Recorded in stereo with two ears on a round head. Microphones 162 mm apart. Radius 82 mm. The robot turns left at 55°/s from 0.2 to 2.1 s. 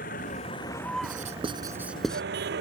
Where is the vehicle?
45° left; by 2.6 s 60° right.